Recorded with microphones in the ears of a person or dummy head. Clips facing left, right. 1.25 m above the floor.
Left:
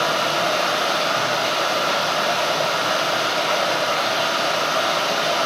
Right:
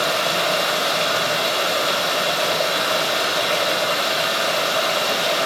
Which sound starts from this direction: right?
Running water, at 0.0 s.